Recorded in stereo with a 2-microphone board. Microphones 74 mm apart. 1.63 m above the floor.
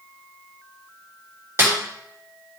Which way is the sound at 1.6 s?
35° right (ahead or behind).